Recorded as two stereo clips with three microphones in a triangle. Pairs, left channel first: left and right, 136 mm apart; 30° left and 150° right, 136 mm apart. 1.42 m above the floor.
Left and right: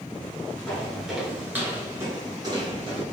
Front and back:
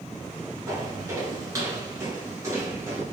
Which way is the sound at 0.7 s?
170° left.